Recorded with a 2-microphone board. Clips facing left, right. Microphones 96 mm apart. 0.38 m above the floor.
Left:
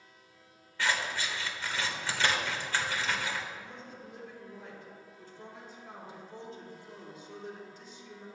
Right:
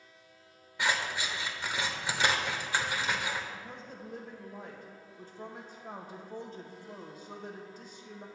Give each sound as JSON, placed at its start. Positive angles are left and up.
{"t": 0.8, "sound": "scissors", "side_deg": -15, "distance_m": 1.1}
{"t": 3.5, "sound": "a woman speaking", "side_deg": -45, "distance_m": 1.5}